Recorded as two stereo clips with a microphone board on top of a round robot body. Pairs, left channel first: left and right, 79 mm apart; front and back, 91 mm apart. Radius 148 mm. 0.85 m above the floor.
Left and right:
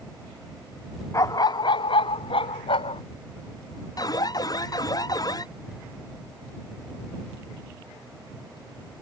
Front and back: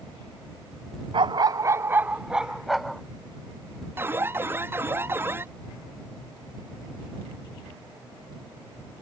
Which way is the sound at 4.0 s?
115° left.